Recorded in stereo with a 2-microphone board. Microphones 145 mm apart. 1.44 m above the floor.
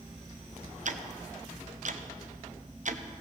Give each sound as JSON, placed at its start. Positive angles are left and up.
{"t": 0.8, "sound": "ticking", "side_deg": -60, "distance_m": 0.6}